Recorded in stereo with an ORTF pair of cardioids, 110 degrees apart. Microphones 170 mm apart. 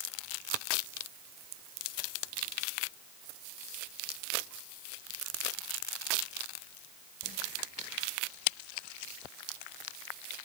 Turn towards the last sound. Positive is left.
No sound to turn to.